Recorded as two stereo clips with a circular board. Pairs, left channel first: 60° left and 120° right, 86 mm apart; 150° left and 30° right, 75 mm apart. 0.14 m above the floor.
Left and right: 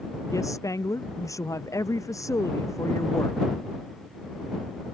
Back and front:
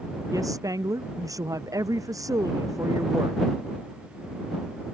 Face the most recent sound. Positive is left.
turn(degrees=10)